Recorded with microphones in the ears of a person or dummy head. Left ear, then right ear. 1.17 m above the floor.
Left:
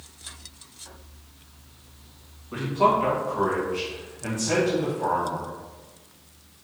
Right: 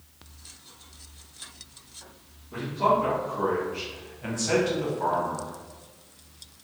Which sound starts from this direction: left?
A man speaking, at 2.5 s.